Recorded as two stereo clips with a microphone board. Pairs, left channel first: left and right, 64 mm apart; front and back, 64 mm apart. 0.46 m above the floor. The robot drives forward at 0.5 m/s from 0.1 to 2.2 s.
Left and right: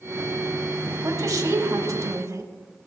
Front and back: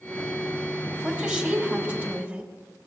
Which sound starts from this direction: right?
A woman speaking, at 1.0 s.